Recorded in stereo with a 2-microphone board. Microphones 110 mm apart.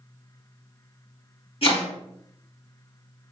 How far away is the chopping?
About 2.5 m.